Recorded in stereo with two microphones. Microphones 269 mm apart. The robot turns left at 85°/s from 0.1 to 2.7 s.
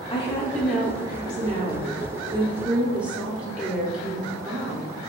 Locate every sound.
0.1 s a woman speaking: 20° left (ahead or behind), 0.8 m; by 4.9 s 5° right (ahead or behind), 0.8 m